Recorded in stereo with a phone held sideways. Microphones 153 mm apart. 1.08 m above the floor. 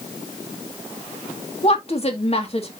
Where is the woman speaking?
40° left (ahead or behind), 2 m.